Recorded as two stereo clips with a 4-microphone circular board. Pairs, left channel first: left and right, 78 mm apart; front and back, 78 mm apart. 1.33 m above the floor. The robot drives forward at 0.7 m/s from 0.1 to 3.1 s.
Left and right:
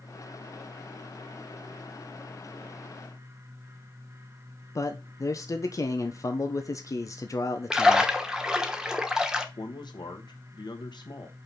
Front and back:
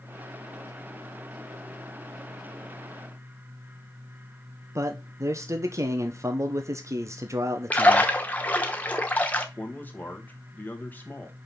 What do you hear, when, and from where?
4.8 s a man speaking: 130° left, 0.9 m
7.7 s a splash: 25° right, 0.9 m
9.6 s a man speaking: 65° left, 1.5 m